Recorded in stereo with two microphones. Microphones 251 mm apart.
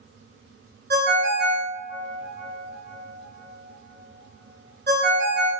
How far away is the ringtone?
About 0.5 m.